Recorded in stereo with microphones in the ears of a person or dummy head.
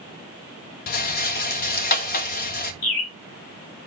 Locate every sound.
0.9 s a rattle: 55° left (ahead or behind), 1.2 m
2.8 s a bird: 50° left (ahead or behind), 4 m